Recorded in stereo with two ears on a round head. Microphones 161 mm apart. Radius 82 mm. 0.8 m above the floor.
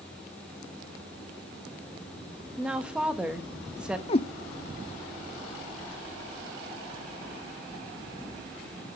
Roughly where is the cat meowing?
Left.